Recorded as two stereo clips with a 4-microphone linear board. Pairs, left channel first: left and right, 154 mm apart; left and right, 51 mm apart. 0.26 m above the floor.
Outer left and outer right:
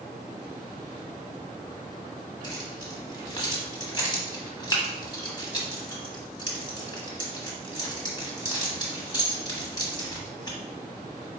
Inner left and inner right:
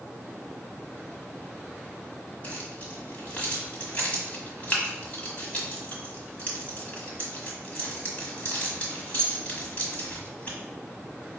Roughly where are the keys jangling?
Left.